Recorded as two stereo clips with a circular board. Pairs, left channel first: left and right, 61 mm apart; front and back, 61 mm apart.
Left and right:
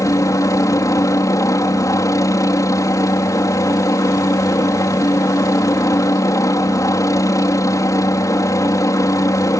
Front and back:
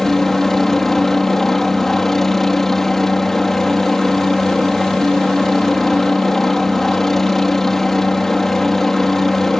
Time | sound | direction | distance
0.0 | a helicopter | 85° left | ?